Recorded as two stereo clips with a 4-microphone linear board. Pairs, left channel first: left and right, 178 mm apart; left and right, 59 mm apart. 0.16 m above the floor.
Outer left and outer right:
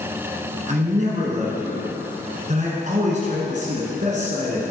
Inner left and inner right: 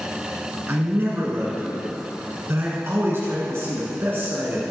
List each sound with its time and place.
0.7 s a man speaking: 45° right (ahead or behind), 1.7 m